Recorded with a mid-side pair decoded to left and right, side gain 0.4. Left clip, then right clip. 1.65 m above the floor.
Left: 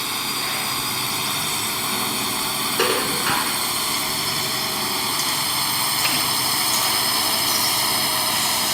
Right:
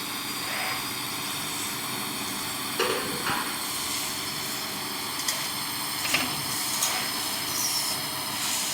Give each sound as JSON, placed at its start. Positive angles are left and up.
{"t": 0.0, "sound": "a drone", "azimuth_deg": 55}
{"t": 2.8, "sound": "dishes clattering", "azimuth_deg": 40}